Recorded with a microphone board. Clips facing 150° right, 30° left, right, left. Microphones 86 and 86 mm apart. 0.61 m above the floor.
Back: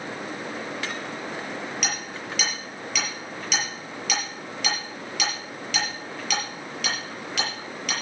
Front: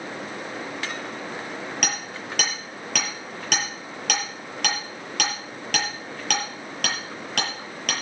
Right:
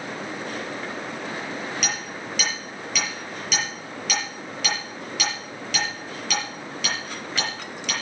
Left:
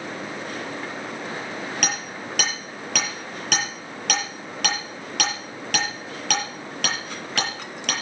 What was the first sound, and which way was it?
Hammering, 60° left.